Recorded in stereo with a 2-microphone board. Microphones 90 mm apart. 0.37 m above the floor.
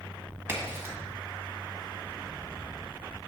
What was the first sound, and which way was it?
A crack, 25° right (ahead or behind).